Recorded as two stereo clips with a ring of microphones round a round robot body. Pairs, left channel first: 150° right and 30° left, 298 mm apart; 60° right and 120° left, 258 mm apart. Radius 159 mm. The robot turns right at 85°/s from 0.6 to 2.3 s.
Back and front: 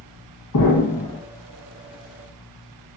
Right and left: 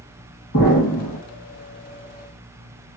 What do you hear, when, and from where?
0.5 s an explosion: 115° right, 1.5 m; by 1.2 s 65° right, 1.5 m